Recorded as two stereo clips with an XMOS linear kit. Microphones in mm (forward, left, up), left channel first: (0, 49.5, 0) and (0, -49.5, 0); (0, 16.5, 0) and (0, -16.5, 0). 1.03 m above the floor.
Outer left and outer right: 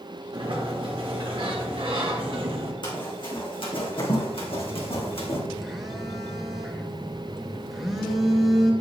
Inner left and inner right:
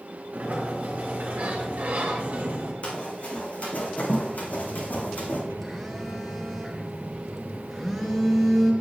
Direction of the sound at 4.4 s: Centre (ahead or behind).